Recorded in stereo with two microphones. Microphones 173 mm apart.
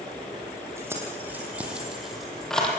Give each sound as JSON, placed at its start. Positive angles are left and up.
{"t": 0.8, "sound": "keys jangling", "side_deg": -15, "distance_m": 5.5}